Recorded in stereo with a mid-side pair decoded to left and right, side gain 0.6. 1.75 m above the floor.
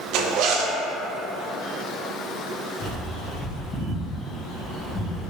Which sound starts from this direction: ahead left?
A bird, at 2.8 s.